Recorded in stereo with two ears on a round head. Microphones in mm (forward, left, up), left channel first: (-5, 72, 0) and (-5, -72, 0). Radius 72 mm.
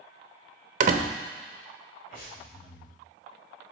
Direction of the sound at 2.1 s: 60° left (ahead or behind).